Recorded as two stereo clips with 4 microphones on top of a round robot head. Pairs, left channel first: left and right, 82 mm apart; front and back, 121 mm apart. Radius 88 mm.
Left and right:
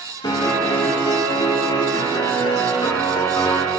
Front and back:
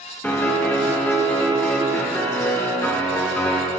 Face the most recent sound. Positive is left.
turn(degrees=75)